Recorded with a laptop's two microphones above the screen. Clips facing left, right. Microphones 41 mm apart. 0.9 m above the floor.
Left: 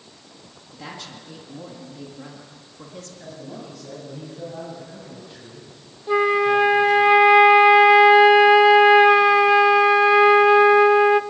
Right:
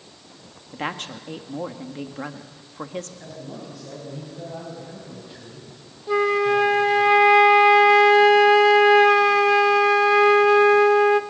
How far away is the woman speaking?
About 1.5 m.